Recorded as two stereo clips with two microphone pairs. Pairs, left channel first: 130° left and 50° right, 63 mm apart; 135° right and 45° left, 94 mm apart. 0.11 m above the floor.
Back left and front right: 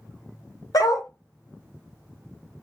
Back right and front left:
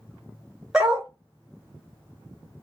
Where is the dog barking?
125° left, 0.9 m.